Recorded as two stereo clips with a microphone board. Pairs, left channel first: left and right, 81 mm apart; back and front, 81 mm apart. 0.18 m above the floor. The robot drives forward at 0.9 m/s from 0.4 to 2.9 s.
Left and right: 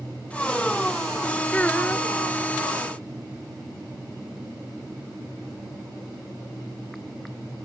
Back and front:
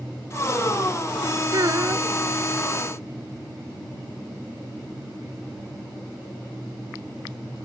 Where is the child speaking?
20° left; by 2.1 s 30° left.